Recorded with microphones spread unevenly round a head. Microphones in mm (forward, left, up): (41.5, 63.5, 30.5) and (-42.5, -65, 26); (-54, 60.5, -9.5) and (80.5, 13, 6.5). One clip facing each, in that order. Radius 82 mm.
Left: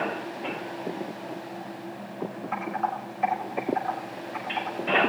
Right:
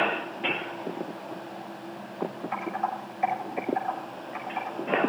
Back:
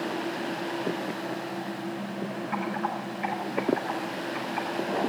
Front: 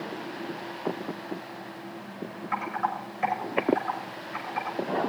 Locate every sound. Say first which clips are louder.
2.5 s typing on a keyboard: left 1 dB, front 2 dB; 40° right, 6.5 m